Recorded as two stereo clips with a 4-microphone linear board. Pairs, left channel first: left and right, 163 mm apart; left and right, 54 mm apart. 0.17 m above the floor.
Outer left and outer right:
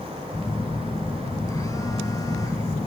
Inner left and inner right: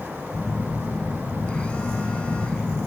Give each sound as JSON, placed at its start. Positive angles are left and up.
{"t": 0.3, "sound": "a phone buzzing", "side_deg": 20, "distance_m": 0.6}